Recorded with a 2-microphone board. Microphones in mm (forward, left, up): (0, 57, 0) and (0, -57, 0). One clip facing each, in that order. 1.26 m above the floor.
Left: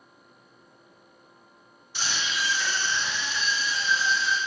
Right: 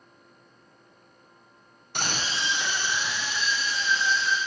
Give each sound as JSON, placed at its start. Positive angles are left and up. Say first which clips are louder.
{"t": 1.9, "sound": "a scream", "louder": "right 1 dB", "side_deg": -60, "distance_m": 0.5}